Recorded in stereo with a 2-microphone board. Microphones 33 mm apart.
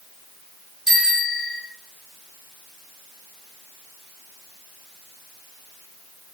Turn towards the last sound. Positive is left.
turn(degrees=-5)  # may be behind; listen again after turning